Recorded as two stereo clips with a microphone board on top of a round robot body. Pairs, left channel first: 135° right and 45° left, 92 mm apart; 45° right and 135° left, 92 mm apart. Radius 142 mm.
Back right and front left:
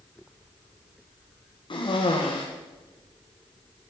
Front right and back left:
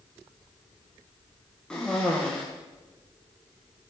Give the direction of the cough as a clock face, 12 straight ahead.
4 o'clock.